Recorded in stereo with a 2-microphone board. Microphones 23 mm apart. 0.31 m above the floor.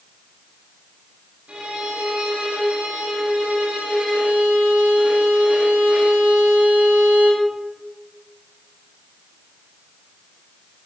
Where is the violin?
85° right, 9 m.